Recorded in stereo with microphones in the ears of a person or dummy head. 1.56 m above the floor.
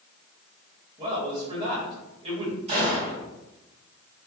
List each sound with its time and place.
1.0 s a man speaking: 30° right (ahead or behind), 1.3 m
2.7 s a gunshot: 35° right (ahead or behind), 1.2 m